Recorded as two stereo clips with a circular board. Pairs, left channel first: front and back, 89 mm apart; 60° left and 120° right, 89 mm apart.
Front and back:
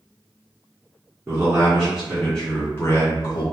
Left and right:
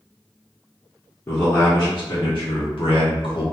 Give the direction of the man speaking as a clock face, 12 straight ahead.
8 o'clock.